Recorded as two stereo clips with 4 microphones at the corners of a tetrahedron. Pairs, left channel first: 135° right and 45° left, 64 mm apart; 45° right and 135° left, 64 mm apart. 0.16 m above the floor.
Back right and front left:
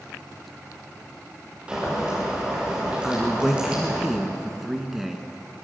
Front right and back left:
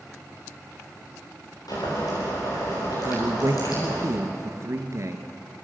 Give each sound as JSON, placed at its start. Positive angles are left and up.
{"t": 1.7, "sound": "boiling", "azimuth_deg": -30, "distance_m": 9.5}
{"t": 3.0, "sound": "a man speaking", "azimuth_deg": 130, "distance_m": 2.0}